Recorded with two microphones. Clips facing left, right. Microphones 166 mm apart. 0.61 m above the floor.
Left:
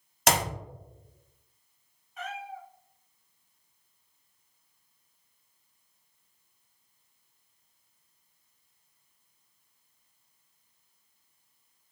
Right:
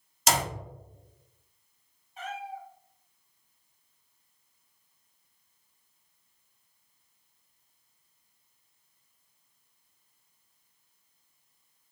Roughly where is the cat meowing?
Right.